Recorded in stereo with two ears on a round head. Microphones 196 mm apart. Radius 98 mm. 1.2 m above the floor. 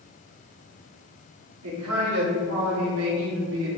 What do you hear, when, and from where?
1.6 s a man speaking: 80° right, 3 m; by 3.7 s 60° right (ahead or behind), 2.5 m